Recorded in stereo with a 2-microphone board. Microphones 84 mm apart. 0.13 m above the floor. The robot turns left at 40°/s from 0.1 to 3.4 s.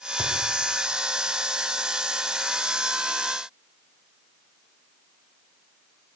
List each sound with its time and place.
0.2 s a thud: 50° left (ahead or behind), 5 m; by 0.4 s 55° left (ahead or behind), 5 m